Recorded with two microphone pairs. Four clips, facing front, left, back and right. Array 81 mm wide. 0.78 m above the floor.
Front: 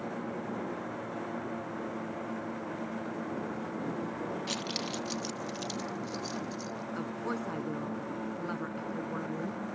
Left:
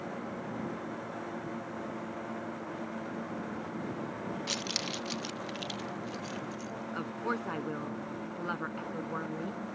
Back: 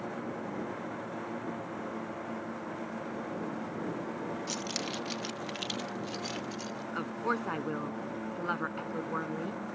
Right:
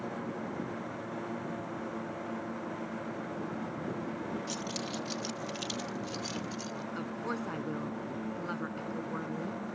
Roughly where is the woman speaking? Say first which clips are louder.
Left 3 dB, back 4 dB; behind.